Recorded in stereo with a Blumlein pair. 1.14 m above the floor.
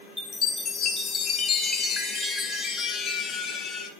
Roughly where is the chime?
Ahead.